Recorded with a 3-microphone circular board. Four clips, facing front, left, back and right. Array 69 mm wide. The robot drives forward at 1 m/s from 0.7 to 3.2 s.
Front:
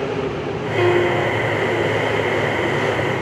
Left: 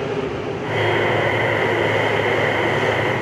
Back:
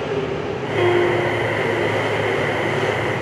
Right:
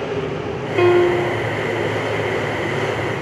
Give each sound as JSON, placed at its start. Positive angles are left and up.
{"t": 0.8, "sound": "a piano", "azimuth_deg": -75, "distance_m": 0.6}